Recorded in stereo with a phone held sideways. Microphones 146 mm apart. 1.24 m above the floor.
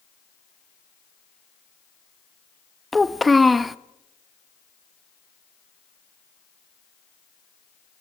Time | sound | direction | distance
2.9 | a child speaking | centre (ahead or behind) | 0.6 m